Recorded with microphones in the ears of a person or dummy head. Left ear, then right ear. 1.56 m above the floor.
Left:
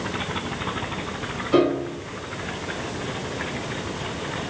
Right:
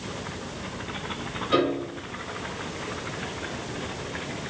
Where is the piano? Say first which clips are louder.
Left 4 dB; 65° right (ahead or behind), 3.5 m.